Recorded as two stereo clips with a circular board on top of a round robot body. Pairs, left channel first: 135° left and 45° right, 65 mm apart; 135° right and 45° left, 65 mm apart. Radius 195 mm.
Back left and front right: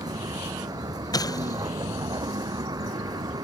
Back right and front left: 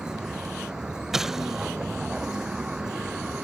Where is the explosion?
130° left.